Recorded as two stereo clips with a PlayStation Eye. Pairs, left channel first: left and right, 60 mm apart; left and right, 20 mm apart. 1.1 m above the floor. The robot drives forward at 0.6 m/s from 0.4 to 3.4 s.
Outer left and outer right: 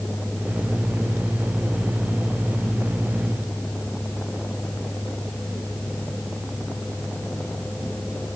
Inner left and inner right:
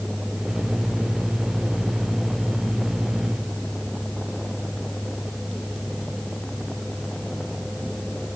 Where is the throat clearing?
I don't hear throat clearing.